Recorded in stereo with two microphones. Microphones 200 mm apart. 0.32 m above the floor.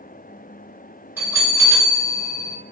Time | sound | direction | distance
1.2 | a bell | 10° right (ahead or behind) | 1.6 m